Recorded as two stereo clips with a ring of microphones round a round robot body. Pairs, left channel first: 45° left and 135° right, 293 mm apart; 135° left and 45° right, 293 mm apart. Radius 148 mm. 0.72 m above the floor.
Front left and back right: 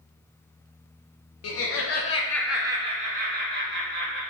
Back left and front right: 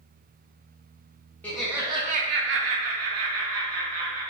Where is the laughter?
50° left, 0.6 m; by 4.2 s 85° right, 1.2 m.